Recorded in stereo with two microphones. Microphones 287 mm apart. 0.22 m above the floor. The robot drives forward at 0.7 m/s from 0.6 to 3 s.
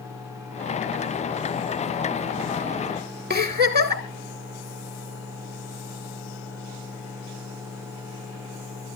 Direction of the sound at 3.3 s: 35° right (ahead or behind).